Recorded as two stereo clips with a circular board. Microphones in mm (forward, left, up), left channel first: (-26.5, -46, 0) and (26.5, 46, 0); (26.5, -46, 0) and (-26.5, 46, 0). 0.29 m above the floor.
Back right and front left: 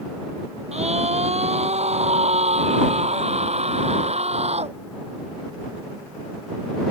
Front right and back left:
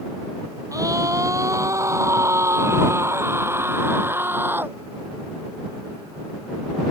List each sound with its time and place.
0.7 s a scream: 60° left; by 4.8 s 50° left